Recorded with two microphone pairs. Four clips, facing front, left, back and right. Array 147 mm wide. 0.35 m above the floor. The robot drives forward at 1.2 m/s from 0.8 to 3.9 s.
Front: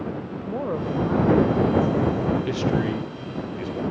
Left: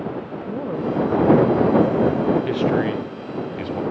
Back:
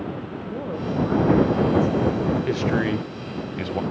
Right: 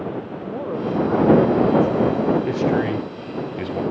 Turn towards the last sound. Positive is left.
turn(degrees=170)